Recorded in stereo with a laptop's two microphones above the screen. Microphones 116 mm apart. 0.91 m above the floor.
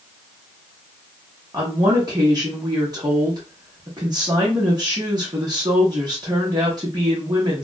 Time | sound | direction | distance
1.5 | a woman speaking | 35° right (ahead or behind) | 0.8 m